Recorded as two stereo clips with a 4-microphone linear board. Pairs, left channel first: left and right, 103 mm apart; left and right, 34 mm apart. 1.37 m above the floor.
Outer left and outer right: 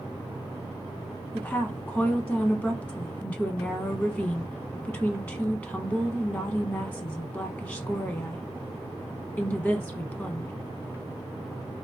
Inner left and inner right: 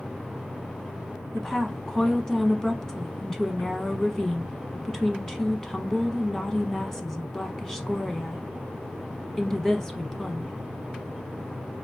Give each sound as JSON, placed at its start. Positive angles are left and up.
{"t": 1.3, "sound": "a woman speaking", "side_deg": 15, "distance_m": 0.8}